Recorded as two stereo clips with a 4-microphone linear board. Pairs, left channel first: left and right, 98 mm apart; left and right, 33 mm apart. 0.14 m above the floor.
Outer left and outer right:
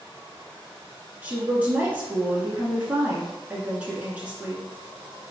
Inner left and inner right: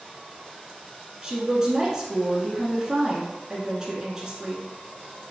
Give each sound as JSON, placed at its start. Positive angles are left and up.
{"t": 1.2, "sound": "a woman speaking", "side_deg": -15, "distance_m": 1.3}